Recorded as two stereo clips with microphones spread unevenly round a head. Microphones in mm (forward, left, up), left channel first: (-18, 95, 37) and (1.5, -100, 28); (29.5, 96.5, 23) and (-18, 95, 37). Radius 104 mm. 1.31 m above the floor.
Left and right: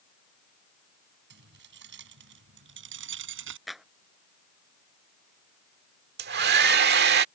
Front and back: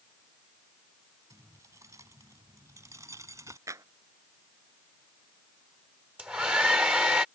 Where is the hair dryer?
115° right.